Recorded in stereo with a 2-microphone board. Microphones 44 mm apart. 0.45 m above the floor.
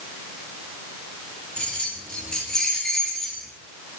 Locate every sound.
1.6 s keys jangling: 20° left (ahead or behind), 5.5 m; by 3.5 s 10° left (ahead or behind), 4.5 m